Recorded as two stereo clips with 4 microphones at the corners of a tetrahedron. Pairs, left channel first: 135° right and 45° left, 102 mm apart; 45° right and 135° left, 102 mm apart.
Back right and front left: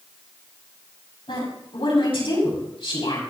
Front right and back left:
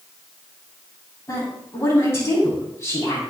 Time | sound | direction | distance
1.3 | a woman speaking | 110° right | 6.5 m